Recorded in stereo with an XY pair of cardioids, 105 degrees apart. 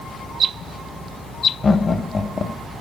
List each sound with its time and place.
1.6 s laughter: 35° left, 1.3 m